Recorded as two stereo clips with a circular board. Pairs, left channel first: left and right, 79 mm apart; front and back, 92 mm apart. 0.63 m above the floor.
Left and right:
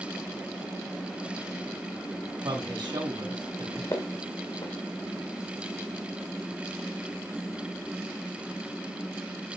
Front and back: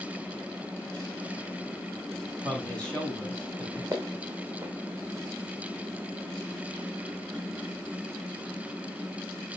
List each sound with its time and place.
2.4 s a man speaking: 80° right, 3 m
3.9 s footsteps: 120° left, 2 m